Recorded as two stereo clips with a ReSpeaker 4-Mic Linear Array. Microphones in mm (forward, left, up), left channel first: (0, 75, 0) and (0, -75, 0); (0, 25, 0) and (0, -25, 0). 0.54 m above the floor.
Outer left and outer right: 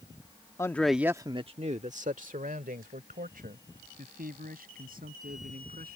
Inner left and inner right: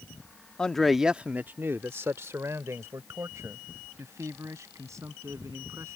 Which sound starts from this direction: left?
A man speaking, at 0.6 s.